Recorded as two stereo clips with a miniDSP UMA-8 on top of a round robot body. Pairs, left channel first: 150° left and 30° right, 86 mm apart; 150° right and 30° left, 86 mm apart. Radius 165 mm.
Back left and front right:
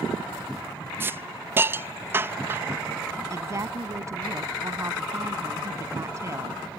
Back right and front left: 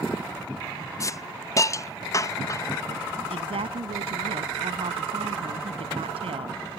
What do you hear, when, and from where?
1.0 s a hiss: 95° right
3.3 s a woman speaking: 25° left